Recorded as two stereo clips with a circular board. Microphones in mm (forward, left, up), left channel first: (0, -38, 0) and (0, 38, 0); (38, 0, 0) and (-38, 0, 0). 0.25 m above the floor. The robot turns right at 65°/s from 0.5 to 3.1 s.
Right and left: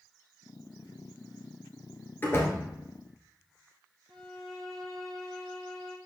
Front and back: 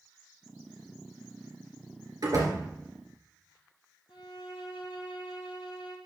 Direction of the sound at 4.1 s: Straight ahead.